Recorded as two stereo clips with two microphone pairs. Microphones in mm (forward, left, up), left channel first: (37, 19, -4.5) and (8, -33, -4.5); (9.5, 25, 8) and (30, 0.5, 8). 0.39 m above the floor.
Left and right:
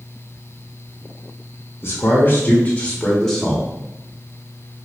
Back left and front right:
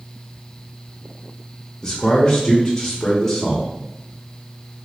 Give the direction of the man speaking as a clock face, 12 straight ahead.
10 o'clock.